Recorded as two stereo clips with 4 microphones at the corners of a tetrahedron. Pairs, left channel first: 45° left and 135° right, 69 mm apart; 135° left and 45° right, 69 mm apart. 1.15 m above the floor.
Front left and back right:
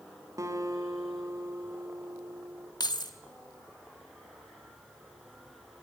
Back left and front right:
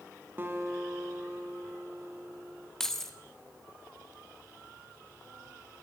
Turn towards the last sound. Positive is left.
turn(degrees=50)